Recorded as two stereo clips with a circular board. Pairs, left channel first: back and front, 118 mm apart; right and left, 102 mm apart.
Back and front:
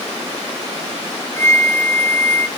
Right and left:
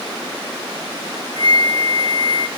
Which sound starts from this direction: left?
A flute, at 1.4 s.